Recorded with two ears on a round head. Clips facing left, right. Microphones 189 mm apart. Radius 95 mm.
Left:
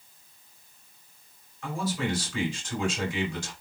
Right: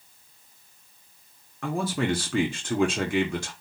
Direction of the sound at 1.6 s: 50° right (ahead or behind).